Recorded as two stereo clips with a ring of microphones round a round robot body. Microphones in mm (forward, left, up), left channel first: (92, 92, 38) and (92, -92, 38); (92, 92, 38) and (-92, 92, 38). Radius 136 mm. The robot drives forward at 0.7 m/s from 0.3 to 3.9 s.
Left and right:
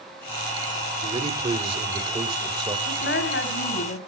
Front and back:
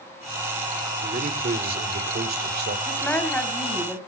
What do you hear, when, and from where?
1.0 s a man speaking: 140° right, 1.8 m; by 2.8 s 160° right, 2.5 m
2.9 s a woman speaking: 80° left, 6 m; by 4.0 s 85° left, 5.5 m